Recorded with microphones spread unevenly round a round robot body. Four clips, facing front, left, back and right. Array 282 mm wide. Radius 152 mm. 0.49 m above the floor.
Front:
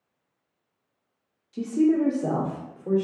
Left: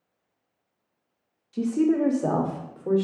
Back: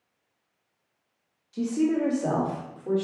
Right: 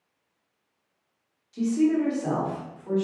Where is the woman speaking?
55° left, 1.2 m; by 3.0 s 75° left, 1.8 m.